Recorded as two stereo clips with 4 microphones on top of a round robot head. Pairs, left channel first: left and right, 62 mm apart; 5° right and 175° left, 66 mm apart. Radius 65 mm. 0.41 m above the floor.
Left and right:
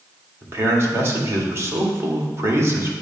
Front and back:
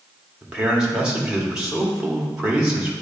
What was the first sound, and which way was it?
A man speaking, 110° right.